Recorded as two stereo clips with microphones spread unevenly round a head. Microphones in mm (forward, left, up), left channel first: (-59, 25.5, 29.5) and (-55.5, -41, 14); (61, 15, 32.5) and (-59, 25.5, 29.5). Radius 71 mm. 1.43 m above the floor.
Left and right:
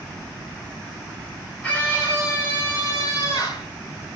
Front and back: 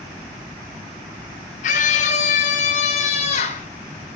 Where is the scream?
15° left, 5.5 m; by 3.7 s 30° left, 6 m.